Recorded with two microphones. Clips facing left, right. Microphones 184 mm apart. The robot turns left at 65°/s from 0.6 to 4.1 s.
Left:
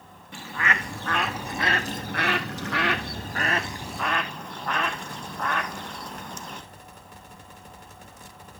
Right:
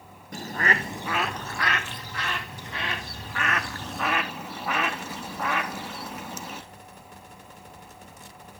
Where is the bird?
140° right, 1.0 m; by 6.6 s 5° right, 1.0 m.